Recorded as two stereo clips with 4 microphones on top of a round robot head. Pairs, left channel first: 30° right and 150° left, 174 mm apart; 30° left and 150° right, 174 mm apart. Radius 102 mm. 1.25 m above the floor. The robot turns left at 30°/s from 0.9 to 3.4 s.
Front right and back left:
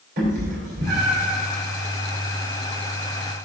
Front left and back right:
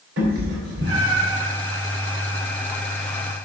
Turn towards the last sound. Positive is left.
turn(degrees=115)